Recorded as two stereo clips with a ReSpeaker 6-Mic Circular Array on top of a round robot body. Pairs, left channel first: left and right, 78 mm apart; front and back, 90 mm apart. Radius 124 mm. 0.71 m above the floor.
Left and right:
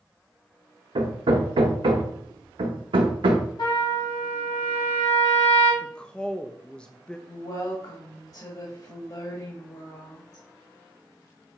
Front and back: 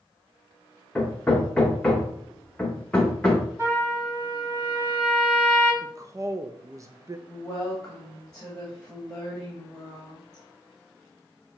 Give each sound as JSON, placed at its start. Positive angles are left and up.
{"t": 0.9, "sound": "hammering", "azimuth_deg": -80, "distance_m": 0.8}
{"t": 3.6, "sound": "a trumpet", "azimuth_deg": 115, "distance_m": 3.0}
{"t": 5.8, "sound": "a woman speaking", "azimuth_deg": 160, "distance_m": 0.6}
{"t": 7.3, "sound": "a woman speaking", "azimuth_deg": 80, "distance_m": 2.0}